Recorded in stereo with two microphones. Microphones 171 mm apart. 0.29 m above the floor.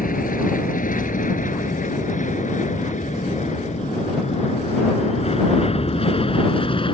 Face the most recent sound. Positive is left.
turn(degrees=30)  # may be behind; listen again after turning